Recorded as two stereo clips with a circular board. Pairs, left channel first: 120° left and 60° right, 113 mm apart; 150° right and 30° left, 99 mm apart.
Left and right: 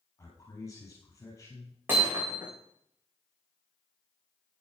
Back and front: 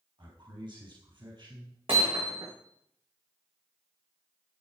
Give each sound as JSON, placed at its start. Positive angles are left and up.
{"t": 0.2, "sound": "a man speaking", "azimuth_deg": 60, "distance_m": 4.0}
{"t": 1.9, "sound": "hammering", "azimuth_deg": 10, "distance_m": 8.0}